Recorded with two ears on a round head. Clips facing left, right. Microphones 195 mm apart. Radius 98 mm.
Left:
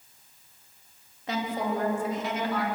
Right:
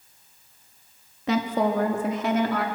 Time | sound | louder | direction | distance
1.3 | a woman speaking | right 6 dB | 55° right (ahead or behind) | 3.5 m